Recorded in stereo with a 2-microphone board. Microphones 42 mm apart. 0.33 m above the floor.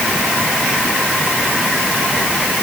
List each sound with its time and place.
Only background noise.